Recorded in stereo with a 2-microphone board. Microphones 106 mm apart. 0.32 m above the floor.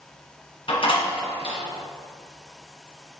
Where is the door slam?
60° left (ahead or behind), 1.9 m.